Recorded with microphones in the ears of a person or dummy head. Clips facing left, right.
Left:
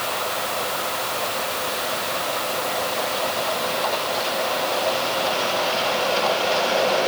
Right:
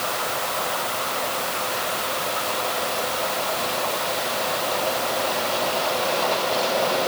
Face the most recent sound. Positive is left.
No sound to turn to.